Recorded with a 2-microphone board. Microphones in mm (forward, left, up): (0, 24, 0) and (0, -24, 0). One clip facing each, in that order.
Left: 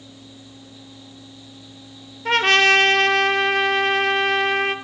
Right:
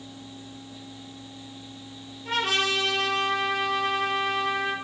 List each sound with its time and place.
2.2 s a trumpet: 65° left (ahead or behind), 1.2 m